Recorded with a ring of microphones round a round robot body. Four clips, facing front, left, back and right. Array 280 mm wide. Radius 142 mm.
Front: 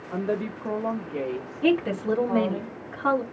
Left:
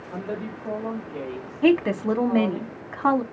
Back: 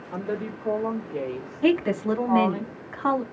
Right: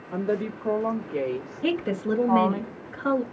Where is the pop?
No pop in this recording.